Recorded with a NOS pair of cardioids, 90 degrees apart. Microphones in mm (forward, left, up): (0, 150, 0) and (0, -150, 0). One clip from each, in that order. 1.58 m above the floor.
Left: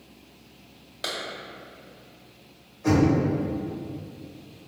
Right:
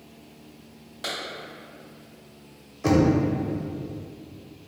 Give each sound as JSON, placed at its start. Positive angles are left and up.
{"t": 1.0, "sound": "a clap", "azimuth_deg": 20, "distance_m": 1.7}
{"t": 2.8, "sound": "knocking", "azimuth_deg": -60, "distance_m": 1.0}